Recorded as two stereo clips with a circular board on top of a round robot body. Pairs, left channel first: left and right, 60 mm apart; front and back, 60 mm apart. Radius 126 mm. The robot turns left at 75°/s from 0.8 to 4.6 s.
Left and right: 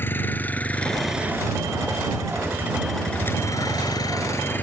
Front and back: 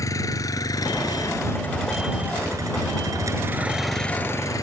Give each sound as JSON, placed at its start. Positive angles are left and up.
{"t": 0.0, "sound": "a vehicle", "azimuth_deg": 30}